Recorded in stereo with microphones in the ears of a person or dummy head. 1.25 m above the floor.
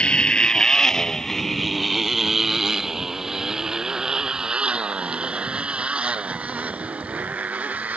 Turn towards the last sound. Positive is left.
turn(degrees=-10)  # may be behind; listen again after turning